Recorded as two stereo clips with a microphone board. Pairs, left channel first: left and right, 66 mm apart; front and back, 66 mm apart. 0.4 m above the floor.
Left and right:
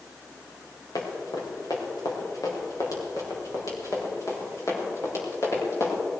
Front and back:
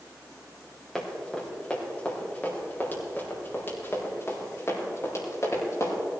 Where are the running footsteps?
85° left, 5 m; by 6.0 s 45° left, 7 m.